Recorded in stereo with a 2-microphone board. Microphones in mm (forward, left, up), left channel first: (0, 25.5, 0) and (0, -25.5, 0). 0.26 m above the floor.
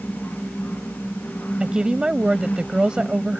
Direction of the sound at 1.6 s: 15° right (ahead or behind).